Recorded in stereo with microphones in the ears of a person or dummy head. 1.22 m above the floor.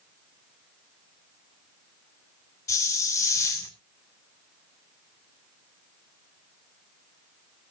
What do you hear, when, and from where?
2.7 s a hiss: 15° left (ahead or behind), 2.5 m